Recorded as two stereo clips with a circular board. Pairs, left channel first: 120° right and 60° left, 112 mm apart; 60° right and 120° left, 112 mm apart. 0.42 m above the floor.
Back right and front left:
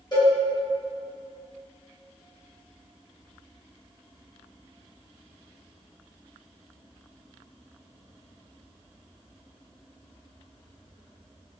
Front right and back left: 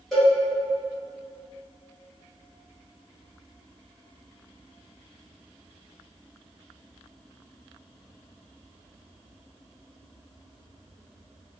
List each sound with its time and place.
0.1 s a cowbell: 150° right, 1.9 m